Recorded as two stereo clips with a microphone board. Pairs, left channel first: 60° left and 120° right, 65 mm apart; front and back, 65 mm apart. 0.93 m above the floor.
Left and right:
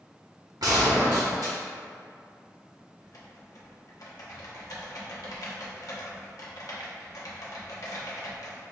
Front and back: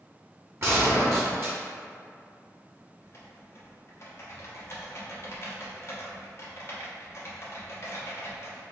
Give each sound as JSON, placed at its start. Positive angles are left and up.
{"t": 0.6, "sound": "a gunshot", "azimuth_deg": -135, "distance_m": 1.0}
{"t": 3.0, "sound": "typing on a keyboard", "azimuth_deg": 45, "distance_m": 0.7}